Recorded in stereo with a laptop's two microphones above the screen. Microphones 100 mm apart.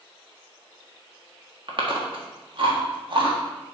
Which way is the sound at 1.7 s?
55° right (ahead or behind).